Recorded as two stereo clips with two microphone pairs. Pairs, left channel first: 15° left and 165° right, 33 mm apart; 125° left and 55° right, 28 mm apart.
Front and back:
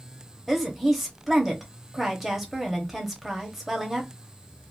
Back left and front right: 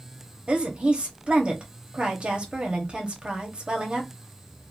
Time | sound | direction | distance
0.5 | a woman speaking | 75° right | 0.8 m